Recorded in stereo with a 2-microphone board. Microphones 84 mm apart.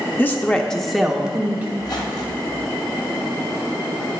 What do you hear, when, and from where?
0.2 s a woman speaking: 25° left (ahead or behind), 0.7 m; by 1.7 s 15° right (ahead or behind), 1.0 m
1.8 s a squeak: 55° left (ahead or behind), 1.4 m